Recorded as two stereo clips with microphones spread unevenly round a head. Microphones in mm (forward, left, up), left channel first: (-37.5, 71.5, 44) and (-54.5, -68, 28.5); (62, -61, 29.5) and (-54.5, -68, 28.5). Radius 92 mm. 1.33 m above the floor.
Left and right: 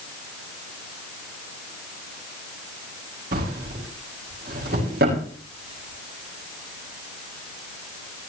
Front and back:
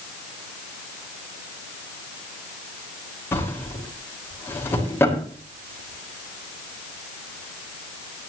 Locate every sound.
3.3 s a drawer: 65° right, 5.5 m